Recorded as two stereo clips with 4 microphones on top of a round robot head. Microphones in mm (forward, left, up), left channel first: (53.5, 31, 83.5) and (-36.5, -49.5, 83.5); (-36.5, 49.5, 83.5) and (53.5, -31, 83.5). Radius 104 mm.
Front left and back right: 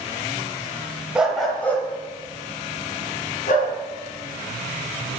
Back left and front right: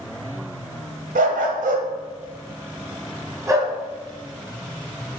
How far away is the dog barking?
About 1.5 m.